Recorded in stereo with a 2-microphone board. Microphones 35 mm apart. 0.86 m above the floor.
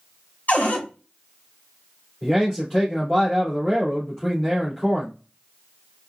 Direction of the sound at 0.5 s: 50° left (ahead or behind).